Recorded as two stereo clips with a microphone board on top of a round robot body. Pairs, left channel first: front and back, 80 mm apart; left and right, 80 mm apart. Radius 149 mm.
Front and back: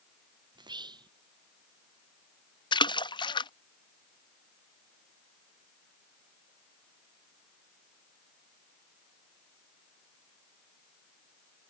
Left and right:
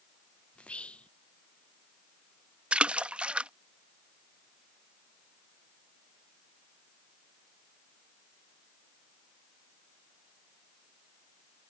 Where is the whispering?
165° left.